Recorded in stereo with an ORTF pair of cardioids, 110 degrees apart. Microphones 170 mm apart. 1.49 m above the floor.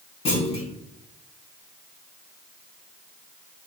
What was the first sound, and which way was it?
A clunk, 40° left.